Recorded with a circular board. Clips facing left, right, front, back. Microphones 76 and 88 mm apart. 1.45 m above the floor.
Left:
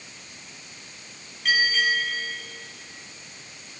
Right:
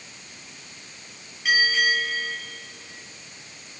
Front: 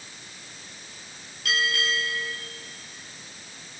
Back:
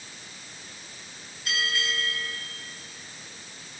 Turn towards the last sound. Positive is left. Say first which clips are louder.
# right 1 dB, front 3 dB
turn(degrees=-5)